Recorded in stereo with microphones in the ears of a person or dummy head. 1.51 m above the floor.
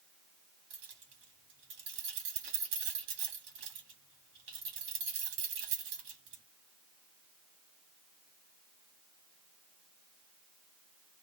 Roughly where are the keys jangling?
Right.